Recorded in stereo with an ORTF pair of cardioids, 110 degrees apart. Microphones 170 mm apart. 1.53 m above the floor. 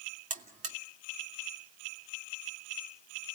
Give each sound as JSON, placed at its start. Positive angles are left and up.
{"t": 0.3, "sound": "a buzzer", "azimuth_deg": -50, "distance_m": 2.0}